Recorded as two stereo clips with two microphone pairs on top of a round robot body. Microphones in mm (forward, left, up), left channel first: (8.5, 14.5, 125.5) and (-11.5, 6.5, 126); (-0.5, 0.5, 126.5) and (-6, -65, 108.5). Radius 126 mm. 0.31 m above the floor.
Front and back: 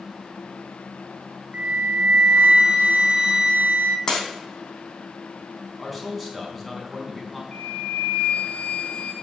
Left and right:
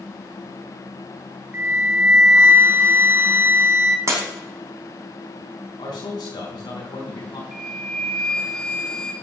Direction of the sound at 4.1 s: 45° right.